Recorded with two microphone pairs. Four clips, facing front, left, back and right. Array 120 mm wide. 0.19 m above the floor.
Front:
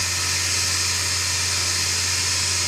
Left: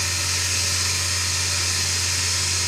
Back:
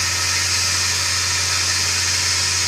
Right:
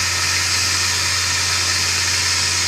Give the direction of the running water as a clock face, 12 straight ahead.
4 o'clock.